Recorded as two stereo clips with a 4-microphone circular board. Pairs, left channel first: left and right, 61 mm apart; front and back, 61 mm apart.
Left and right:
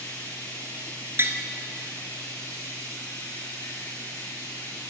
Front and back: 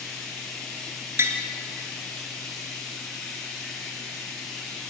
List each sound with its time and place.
0.0 s running water: 90° left, 9 m
1.2 s tapping: 140° right, 2.0 m